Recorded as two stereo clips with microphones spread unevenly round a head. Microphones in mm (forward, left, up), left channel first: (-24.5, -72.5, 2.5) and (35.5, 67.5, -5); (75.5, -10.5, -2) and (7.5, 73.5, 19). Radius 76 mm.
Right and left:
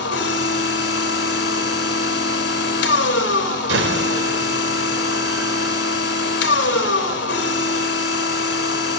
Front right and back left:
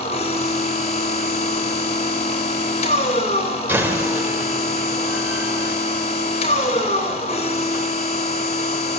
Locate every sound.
0.0 s a machine running: 105° right, 3 m
3.7 s a door slam: 60° left, 4 m